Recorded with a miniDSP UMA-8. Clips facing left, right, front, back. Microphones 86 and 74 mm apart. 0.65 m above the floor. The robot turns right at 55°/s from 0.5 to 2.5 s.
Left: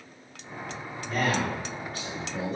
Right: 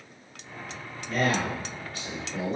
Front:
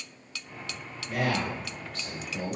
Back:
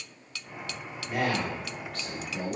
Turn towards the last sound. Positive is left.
turn(degrees=-155)